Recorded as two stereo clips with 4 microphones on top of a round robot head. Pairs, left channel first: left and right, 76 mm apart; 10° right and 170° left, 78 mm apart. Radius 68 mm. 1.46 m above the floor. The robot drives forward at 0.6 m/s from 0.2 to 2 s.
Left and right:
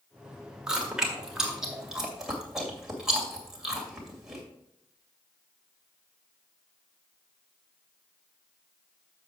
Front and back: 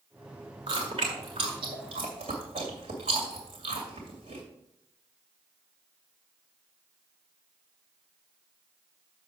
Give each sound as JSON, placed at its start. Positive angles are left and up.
{"t": 0.7, "sound": "chewing", "azimuth_deg": -170, "distance_m": 1.5}